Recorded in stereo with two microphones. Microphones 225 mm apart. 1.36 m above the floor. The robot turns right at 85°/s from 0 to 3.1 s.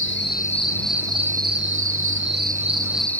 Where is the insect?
105° left; by 3.2 s 10° left.